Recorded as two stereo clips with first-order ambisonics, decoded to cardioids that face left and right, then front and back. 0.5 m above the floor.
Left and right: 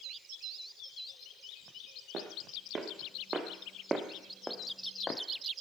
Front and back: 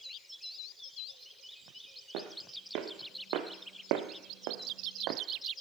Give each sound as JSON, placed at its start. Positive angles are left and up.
{"t": 2.1, "sound": "footsteps", "azimuth_deg": -155, "distance_m": 2.5}